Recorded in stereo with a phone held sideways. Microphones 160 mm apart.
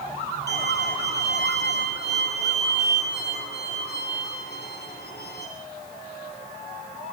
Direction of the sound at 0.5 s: 85° left.